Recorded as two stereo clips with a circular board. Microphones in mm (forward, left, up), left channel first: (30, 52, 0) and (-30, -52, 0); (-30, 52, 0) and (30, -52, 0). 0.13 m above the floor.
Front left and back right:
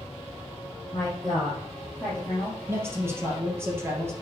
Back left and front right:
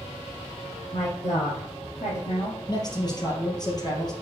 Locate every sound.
0.9 s a woman speaking: 135° left, 3 m
2.7 s a man speaking: 170° left, 3 m